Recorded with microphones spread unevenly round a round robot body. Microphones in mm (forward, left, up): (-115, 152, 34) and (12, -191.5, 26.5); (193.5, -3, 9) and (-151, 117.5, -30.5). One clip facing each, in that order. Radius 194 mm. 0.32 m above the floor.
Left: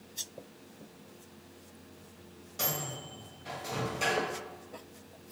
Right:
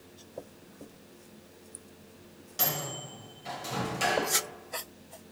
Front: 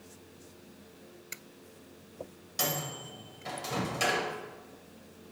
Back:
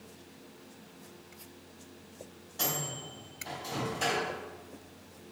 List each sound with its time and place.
2.6 s a microwave: 5° right, 1.3 m